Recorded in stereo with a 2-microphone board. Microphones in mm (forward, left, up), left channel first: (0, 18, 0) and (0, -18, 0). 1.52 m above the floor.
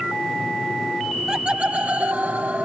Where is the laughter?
15° right (ahead or behind); by 2.7 s 60° right (ahead or behind).